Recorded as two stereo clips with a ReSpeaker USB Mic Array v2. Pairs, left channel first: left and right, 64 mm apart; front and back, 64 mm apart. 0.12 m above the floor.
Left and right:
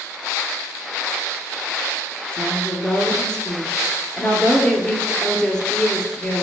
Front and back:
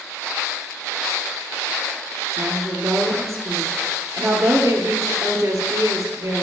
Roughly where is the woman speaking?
Behind.